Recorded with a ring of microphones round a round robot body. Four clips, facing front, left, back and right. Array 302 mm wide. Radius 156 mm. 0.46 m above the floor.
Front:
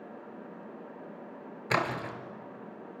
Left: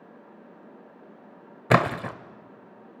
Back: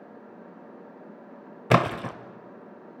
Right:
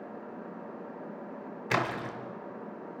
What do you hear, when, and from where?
1.7 s a splash: 130° left, 0.8 m